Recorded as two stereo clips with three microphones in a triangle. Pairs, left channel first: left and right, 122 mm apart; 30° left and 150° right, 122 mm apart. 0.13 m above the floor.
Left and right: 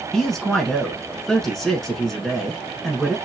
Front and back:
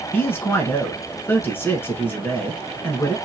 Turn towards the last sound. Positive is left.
turn(degrees=15)